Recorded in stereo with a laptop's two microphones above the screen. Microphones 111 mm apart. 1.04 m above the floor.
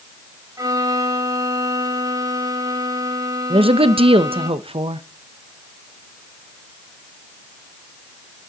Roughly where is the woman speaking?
Right.